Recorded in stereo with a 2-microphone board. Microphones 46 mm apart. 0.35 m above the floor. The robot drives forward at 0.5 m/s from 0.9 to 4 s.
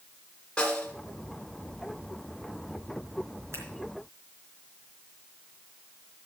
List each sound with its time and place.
0.6 s a snare drum: 20° left (ahead or behind), 1.5 m
3.5 s scissors: 70° right (ahead or behind), 3.5 m